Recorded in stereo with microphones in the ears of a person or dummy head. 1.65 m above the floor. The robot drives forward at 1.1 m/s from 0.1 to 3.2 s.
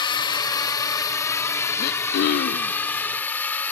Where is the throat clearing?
50° left (ahead or behind); by 2.8 s 45° left (ahead or behind).